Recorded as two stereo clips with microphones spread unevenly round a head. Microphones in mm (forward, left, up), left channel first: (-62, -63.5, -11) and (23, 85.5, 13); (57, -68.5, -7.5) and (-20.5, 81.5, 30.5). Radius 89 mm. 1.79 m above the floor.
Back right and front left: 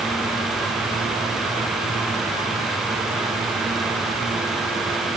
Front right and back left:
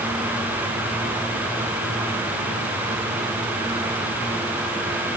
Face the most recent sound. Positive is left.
No sound to turn to.